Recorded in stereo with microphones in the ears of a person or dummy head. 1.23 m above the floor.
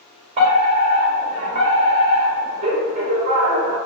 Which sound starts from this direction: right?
A fire alarm, at 0.4 s.